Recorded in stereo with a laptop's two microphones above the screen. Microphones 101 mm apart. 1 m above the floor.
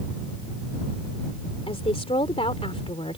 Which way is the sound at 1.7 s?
75° left (ahead or behind).